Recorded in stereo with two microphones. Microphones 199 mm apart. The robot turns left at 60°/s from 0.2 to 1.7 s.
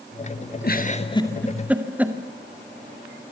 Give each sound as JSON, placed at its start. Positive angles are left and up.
{"t": 0.6, "sound": "a giggle", "side_deg": 50, "distance_m": 2.0}